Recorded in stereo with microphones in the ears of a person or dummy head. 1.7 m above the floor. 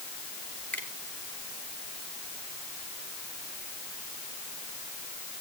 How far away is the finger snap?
About 3.5 m.